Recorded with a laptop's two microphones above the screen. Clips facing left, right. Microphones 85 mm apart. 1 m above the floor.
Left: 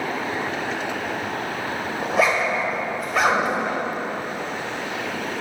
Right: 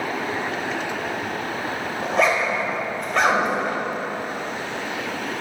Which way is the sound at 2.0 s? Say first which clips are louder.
Even; 5° left (ahead or behind).